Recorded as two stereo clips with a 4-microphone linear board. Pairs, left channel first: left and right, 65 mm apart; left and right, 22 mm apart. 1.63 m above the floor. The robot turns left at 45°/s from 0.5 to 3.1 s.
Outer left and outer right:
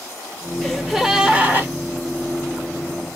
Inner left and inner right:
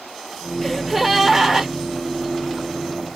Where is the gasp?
15° left, 1.6 m; by 1.7 s 35° right, 1.6 m.